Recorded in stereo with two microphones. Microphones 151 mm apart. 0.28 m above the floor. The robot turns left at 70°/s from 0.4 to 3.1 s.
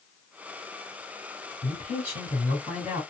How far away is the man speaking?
About 2.5 m.